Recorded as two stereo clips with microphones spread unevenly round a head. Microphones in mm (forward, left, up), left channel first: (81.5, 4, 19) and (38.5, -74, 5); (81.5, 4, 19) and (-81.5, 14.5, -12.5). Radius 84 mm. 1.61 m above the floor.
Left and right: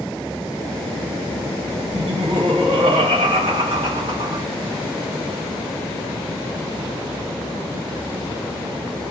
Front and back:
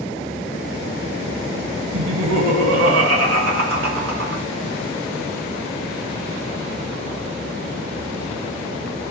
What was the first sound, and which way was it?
Laughter, straight behind.